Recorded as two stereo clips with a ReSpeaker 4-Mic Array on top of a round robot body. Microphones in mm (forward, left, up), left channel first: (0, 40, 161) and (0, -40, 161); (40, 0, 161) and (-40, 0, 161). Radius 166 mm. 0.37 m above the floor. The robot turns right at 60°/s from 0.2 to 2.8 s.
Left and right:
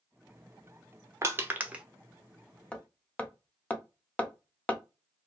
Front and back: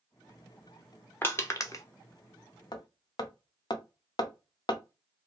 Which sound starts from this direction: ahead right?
Crushing, at 1.2 s.